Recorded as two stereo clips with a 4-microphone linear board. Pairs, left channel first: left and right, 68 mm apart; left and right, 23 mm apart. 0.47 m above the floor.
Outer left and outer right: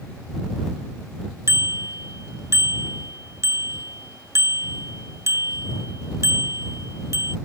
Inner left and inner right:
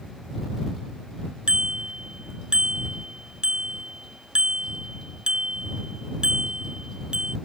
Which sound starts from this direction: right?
A bicycle bell, at 1.5 s.